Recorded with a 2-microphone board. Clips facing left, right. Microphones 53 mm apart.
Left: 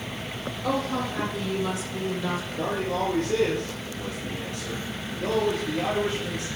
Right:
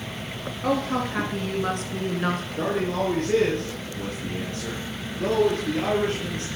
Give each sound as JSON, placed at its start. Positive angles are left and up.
{"t": 0.6, "sound": "a woman speaking", "side_deg": -55, "distance_m": 2.0}
{"t": 2.6, "sound": "a man speaking", "side_deg": -50, "distance_m": 3.0}